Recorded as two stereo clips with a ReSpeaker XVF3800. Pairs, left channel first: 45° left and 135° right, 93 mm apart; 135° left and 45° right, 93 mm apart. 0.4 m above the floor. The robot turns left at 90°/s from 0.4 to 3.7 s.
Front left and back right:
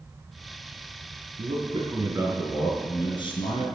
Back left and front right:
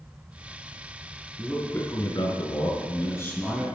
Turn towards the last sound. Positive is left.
turn(degrees=25)